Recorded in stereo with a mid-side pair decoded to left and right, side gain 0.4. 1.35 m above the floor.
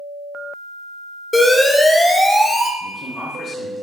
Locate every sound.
1.3 s an alarm: 20° left, 0.5 m
2.8 s a man speaking: 50° left, 1.0 m